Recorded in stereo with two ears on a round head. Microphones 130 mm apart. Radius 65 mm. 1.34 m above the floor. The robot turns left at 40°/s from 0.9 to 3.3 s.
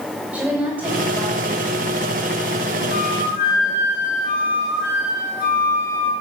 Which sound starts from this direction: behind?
A woman speaking, at 0.3 s.